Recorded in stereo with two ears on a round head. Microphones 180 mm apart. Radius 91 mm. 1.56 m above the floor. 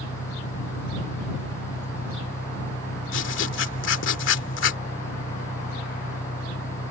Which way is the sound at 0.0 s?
45° left (ahead or behind).